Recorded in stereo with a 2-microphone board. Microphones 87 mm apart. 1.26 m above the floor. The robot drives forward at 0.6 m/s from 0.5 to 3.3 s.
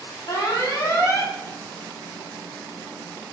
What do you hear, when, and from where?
0.3 s an alarm: 40° left (ahead or behind), 1.0 m; by 1.3 s 35° left (ahead or behind), 1.2 m